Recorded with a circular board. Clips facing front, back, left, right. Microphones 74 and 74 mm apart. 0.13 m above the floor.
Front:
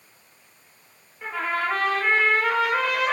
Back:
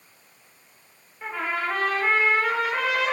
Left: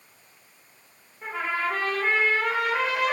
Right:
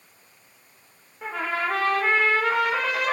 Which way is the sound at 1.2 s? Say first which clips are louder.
Front 2 dB, right 1 dB; 95° right.